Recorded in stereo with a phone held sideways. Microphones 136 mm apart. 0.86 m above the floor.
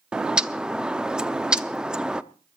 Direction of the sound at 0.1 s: 5° right (ahead or behind).